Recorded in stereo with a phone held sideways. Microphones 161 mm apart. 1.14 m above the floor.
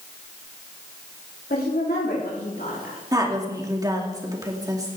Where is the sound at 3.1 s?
25° right (ahead or behind), 2.5 m.